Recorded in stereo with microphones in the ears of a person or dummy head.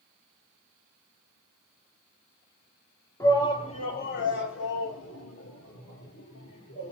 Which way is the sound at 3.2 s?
20° left (ahead or behind).